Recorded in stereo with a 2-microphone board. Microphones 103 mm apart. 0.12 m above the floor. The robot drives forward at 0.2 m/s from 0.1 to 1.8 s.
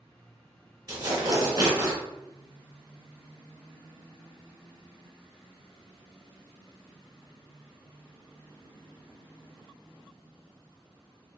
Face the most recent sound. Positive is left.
turn(degrees=-40)  # may be behind; listen again after turning